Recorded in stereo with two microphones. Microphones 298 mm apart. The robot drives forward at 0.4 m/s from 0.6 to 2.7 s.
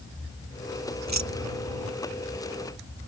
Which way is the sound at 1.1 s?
70° right (ahead or behind).